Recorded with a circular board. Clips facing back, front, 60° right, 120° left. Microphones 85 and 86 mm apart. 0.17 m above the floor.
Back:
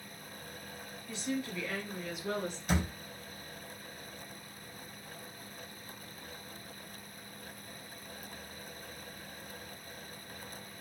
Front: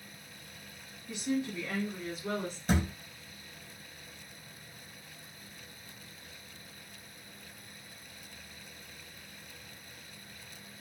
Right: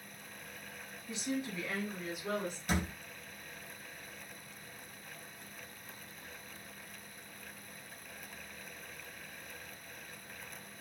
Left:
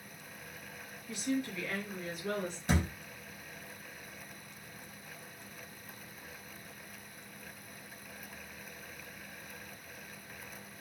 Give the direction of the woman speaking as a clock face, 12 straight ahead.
2 o'clock.